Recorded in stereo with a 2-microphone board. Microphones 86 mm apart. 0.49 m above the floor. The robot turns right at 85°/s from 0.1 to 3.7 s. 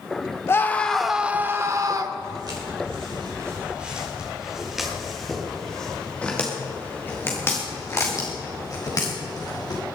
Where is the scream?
135° left, 1.2 m; by 2.1 s 90° right, 1.2 m.